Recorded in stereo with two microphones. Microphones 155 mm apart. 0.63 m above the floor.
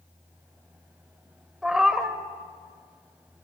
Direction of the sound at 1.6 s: 5° right (ahead or behind).